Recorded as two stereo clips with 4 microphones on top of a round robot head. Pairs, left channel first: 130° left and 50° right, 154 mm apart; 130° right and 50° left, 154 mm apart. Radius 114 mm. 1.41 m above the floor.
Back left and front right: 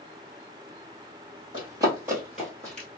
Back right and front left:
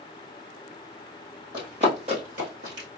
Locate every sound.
1.5 s running footsteps: straight ahead, 1.6 m; by 2.9 s 50° left, 1.8 m